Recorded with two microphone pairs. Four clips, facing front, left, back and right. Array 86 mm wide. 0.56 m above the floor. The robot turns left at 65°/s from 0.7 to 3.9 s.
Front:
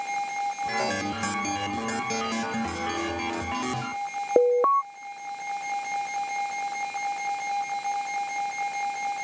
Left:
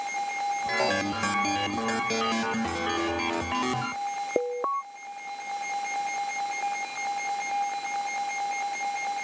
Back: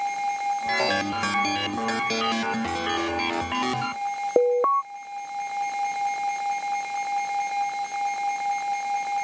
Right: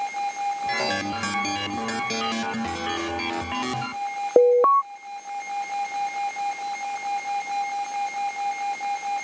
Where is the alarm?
95° right.